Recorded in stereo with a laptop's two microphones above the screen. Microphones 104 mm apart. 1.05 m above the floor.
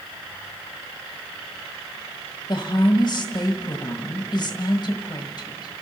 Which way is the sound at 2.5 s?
40° left (ahead or behind).